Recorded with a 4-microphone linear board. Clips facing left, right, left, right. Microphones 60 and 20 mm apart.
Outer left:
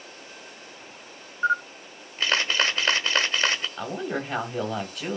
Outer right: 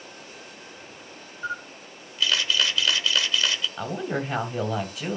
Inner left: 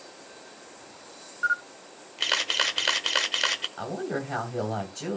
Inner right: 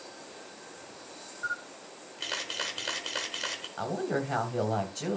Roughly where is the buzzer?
I don't hear a buzzer.